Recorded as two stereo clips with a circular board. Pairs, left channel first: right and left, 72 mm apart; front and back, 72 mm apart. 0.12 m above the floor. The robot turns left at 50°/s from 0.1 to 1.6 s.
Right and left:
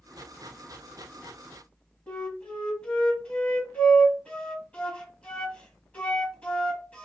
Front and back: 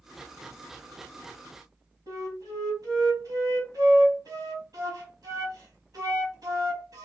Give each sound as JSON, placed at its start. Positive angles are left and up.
{"t": 2.1, "sound": "a flute", "azimuth_deg": -160, "distance_m": 1.4}